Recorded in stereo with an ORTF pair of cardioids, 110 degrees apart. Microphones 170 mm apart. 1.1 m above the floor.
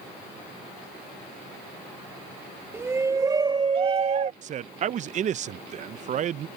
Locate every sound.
2.7 s a shout: 15° right; by 4.3 s 45° right
4.4 s a man speaking: 45° right